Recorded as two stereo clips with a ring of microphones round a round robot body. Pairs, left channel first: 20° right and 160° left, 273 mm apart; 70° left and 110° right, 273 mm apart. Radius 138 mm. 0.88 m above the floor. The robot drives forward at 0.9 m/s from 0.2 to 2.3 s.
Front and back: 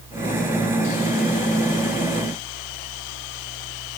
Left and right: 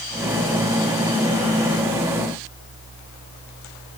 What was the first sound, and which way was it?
Only background noise.